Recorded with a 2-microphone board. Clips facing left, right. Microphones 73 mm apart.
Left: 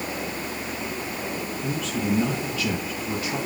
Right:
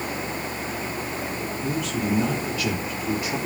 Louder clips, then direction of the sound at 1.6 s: Right 1 dB; 20° right (ahead or behind).